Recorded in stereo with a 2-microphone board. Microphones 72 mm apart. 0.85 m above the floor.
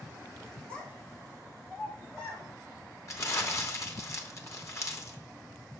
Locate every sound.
0.7 s a child speaking: 15° left (ahead or behind), 2.5 m; by 2.5 s 5° left (ahead or behind), 4.5 m
3.1 s crumpling: 40° left (ahead or behind), 1.0 m